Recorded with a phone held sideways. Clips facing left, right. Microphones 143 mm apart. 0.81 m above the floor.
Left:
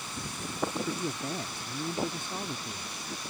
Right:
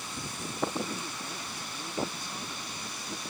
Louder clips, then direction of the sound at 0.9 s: Left 6 dB; 50° left (ahead or behind).